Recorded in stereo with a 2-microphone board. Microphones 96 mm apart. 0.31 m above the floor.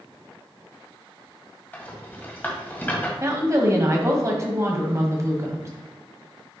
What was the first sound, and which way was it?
A rattle, 20° left (ahead or behind).